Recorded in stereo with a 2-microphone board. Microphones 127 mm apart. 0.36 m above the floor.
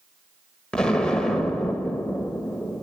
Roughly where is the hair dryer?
I don't hear a hair dryer.